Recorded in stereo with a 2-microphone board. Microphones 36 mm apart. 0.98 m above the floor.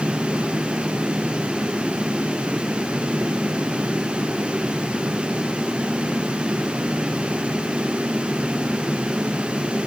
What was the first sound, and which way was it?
Only background noise.